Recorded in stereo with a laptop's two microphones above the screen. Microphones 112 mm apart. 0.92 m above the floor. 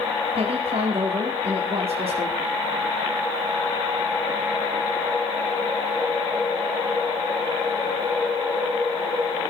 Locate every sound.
0.3 s a woman speaking: 70° right (ahead or behind), 2 m